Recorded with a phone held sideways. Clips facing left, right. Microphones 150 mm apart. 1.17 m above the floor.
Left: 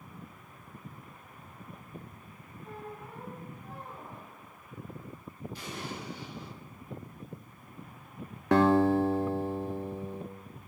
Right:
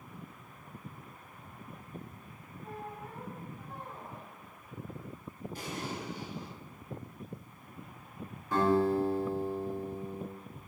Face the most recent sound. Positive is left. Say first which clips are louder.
# left 4 dB
turn(degrees=80)